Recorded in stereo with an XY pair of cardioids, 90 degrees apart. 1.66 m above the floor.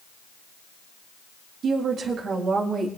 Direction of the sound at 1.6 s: 70° right.